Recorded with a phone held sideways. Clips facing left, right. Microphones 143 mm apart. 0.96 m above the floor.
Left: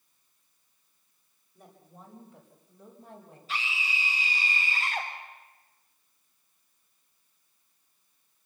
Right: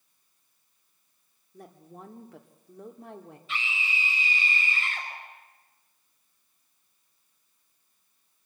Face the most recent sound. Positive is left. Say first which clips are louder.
# even
turn(degrees=40)  # may be behind; listen again after turning